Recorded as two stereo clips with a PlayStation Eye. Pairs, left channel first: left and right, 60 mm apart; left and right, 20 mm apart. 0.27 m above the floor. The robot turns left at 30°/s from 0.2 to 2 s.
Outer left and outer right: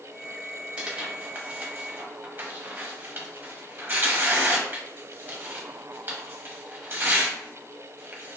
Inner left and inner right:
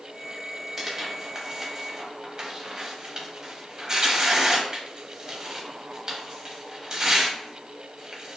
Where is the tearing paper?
15° right (ahead or behind), 0.8 m; by 8.4 s 35° right (ahead or behind), 0.8 m.